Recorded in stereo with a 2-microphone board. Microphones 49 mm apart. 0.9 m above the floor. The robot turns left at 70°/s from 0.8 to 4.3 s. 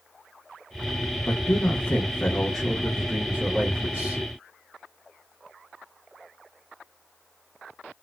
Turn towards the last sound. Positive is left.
turn(degrees=-115)